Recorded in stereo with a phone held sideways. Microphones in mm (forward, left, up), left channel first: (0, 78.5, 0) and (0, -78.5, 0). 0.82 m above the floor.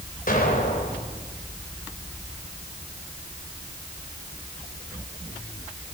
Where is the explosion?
65° left (ahead or behind), 4 m.